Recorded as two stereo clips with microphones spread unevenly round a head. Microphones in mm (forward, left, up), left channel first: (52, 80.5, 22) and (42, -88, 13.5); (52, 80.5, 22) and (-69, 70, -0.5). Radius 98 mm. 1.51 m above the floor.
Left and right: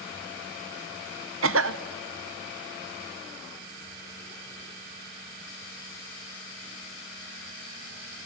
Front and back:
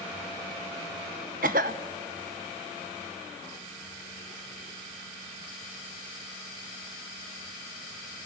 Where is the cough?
120° right, 0.8 m.